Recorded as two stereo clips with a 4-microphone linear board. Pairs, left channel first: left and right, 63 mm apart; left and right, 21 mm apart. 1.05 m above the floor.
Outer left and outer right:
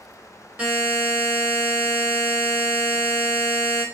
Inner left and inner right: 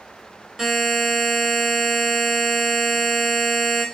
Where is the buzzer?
20° right (ahead or behind), 1.9 m.